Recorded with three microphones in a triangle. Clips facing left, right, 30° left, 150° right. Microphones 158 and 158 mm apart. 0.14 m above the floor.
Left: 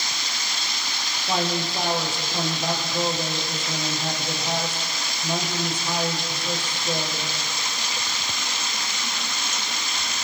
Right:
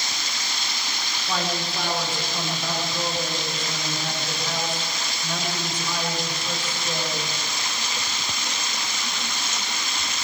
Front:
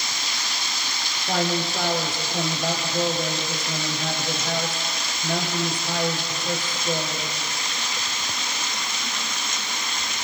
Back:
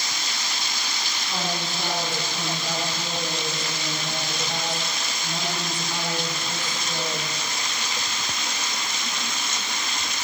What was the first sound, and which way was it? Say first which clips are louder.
A man speaking: left 3 dB, front 6 dB; 25° left.